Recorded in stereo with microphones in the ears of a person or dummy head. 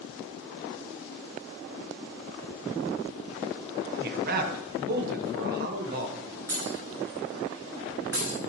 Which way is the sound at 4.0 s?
55° right (ahead or behind).